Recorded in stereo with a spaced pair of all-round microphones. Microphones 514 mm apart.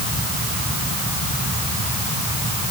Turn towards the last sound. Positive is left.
No sound to turn to.